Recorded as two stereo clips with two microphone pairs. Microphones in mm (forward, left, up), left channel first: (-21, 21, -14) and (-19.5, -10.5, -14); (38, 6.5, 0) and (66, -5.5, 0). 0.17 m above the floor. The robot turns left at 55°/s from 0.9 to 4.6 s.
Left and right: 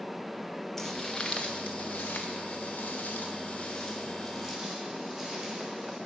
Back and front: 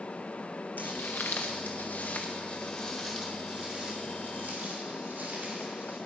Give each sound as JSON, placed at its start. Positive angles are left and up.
{"t": 0.8, "sound": "footsteps", "azimuth_deg": 170, "distance_m": 0.6}